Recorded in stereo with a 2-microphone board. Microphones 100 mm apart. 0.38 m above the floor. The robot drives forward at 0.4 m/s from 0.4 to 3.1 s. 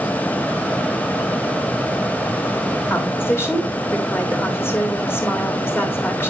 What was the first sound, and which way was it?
A woman speaking, 25° left (ahead or behind).